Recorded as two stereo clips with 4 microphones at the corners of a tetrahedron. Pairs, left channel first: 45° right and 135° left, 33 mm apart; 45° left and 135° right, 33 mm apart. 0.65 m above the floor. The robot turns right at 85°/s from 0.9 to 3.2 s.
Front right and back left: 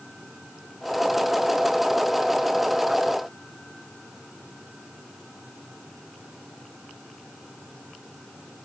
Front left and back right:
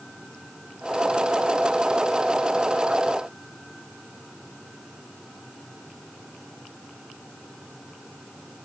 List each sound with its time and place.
Only background noise.